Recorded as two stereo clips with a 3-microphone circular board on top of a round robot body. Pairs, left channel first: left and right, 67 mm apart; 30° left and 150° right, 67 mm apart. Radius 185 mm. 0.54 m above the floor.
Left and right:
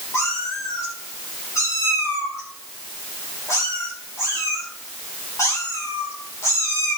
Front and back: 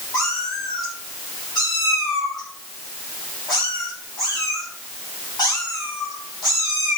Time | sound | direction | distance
0.1 | a cat meowing | 40° left | 4 m